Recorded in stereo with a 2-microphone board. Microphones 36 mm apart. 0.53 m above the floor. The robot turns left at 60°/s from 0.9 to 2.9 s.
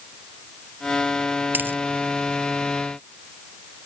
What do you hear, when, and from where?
1.5 s a dropped coin: 65° right (ahead or behind); by 1.8 s 80° right